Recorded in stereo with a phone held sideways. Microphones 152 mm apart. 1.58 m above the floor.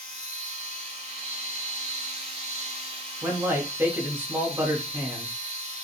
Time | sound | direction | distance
0.0 | a machine running | 45° right (ahead or behind) | 3.5 m
3.2 | a man speaking | 15° right (ahead or behind) | 3 m